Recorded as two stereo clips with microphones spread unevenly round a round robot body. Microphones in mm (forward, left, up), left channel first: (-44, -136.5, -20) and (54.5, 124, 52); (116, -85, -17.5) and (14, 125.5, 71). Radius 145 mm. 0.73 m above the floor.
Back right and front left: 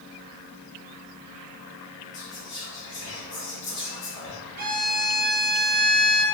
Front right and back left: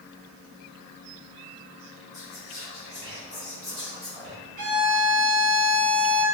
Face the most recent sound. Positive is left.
turn(degrees=130)